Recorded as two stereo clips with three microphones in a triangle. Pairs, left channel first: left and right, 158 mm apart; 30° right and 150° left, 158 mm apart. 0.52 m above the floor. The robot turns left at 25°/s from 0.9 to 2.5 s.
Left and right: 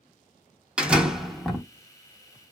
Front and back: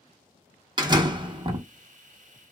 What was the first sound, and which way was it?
A door slam, 170° right.